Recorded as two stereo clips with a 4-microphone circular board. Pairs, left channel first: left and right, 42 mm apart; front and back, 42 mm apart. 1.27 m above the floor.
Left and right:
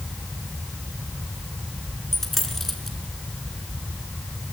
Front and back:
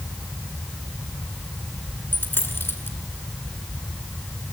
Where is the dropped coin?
10° left, 2.5 m.